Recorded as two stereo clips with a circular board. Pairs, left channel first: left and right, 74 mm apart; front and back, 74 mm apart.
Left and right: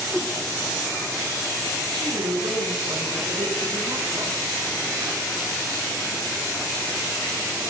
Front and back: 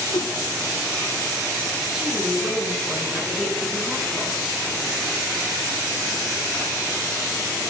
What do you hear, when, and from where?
0.1 s a whoosh: straight ahead, 1.8 m
1.9 s a woman speaking: 95° right, 8 m